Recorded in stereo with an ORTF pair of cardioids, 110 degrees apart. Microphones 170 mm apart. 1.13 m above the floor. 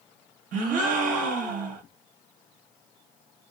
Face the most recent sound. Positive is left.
turn(degrees=-60)